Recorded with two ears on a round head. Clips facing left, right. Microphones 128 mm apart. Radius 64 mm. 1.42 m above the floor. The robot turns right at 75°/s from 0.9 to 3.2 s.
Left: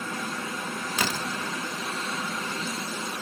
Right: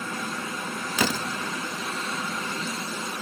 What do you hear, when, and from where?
1.0 s a door slam: 75° right (ahead or behind), 1.5 m; by 1.3 s 65° right (ahead or behind), 1.5 m